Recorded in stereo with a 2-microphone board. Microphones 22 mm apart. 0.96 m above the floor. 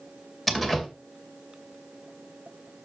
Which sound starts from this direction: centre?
A door slam, at 0.5 s.